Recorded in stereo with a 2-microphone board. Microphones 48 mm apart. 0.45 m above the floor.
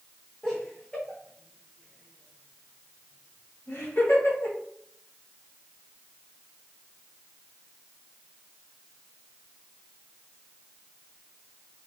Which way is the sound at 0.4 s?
10° left (ahead or behind).